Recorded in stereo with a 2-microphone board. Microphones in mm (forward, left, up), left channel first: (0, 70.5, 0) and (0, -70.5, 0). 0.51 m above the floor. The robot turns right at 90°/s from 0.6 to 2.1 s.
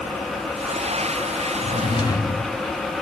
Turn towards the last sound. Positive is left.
turn(degrees=155)